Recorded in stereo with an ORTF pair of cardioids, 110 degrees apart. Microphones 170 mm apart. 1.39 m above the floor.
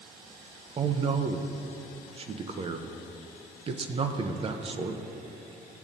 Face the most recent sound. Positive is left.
turn(degrees=-35)